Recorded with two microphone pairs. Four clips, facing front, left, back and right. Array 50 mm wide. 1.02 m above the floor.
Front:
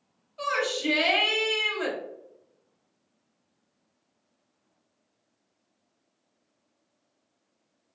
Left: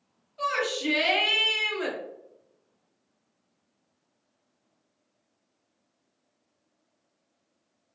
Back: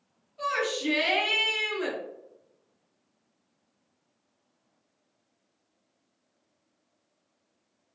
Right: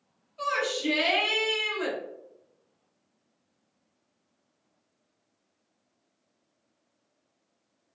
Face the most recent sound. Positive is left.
turn(degrees=15)